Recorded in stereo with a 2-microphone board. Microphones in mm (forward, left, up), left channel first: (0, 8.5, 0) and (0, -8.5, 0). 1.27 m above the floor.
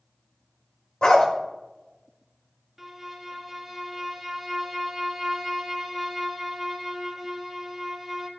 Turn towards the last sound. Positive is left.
turn(degrees=-15)  # may be behind; listen again after turning